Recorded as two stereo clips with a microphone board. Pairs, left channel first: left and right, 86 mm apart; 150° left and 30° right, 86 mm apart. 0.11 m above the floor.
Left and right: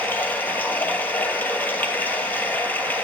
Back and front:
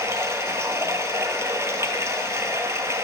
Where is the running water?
25° left, 0.8 m.